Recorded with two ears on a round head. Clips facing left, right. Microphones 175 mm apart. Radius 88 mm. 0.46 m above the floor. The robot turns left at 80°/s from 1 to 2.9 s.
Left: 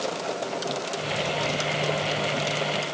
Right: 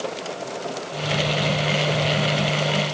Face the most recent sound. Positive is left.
No sound to turn to.